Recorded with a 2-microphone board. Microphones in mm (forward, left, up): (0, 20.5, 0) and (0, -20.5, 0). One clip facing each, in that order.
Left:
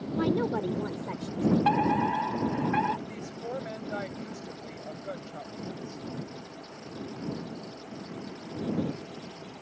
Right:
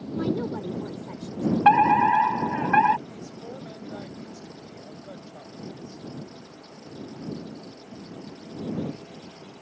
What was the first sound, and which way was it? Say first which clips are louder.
A woman speaking: left 1 dB; 25° left (ahead or behind).